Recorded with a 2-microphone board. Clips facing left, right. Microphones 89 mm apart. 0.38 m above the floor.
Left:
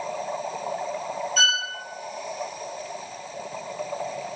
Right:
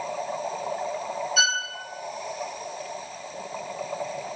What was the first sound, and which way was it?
A violin, 5° right (ahead or behind).